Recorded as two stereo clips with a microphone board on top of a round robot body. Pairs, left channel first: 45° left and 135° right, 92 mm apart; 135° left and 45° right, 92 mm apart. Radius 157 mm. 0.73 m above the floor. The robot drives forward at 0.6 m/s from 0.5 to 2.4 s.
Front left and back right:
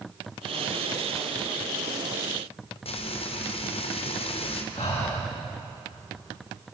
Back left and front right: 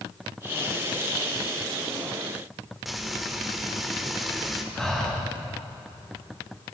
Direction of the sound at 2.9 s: 45° left.